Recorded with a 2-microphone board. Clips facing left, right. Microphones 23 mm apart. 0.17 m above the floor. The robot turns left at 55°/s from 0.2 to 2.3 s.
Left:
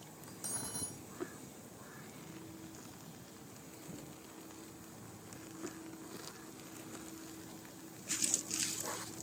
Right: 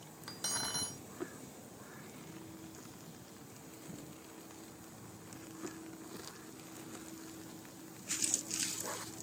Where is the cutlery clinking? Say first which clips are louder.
Right 7 dB; 95° right; by 1.0 s 135° right.